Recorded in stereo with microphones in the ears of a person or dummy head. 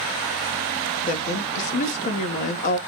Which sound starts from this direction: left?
A woman speaking, at 1.1 s.